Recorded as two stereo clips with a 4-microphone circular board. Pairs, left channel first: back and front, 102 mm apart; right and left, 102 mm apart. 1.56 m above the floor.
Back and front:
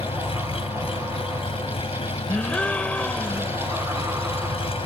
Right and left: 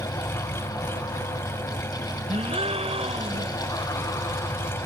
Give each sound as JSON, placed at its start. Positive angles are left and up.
{"t": 0.0, "sound": "an engine running", "azimuth_deg": -155}
{"t": 2.3, "sound": "a gasp", "azimuth_deg": 100}